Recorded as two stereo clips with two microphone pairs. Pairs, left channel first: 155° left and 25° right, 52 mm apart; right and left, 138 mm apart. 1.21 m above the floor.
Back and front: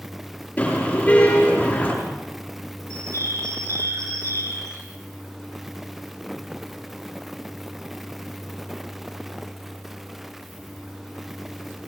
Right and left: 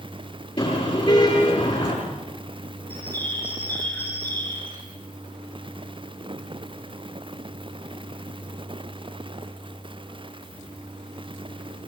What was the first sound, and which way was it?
A car horn, 145° right.